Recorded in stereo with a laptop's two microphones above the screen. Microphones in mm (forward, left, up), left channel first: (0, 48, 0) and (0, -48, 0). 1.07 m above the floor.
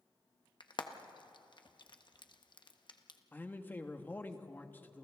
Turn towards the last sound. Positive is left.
turn(degrees=20)  # may be behind; listen again after turning